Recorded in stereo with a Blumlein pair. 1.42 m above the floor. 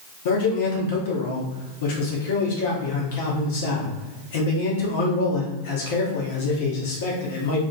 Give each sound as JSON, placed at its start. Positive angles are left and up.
{"t": 0.2, "sound": "a man speaking", "azimuth_deg": 55, "distance_m": 0.9}